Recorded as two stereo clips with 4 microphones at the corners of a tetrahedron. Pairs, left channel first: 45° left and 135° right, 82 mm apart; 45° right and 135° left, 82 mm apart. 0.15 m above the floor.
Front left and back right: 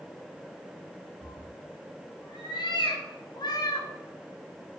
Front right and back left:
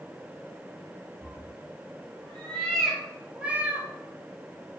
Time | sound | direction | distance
1.2 | a cat meowing | 20° left | 1.7 m